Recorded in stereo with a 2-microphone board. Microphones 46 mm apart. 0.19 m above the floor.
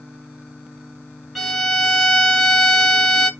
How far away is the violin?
About 1.3 m.